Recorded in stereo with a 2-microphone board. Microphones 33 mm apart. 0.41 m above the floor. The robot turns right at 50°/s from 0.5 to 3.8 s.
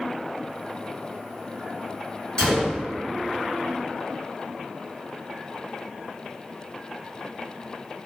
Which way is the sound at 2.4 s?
30° left (ahead or behind).